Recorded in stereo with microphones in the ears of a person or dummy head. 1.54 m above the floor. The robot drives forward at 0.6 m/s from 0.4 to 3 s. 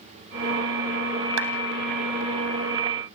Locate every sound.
1.4 s a clap: 80° right, 2.5 m; by 1.5 s 75° right (ahead or behind), 3 m